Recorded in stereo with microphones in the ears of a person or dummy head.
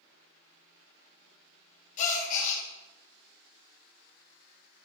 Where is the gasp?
40° left (ahead or behind), 1.8 m.